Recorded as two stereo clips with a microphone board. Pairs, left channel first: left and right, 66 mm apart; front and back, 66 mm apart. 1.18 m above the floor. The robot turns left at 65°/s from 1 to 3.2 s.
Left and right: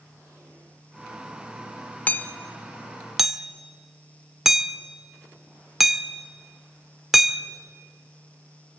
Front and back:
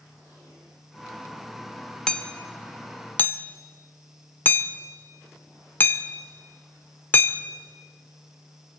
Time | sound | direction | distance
2.1 | hammering | 65° left | 0.9 m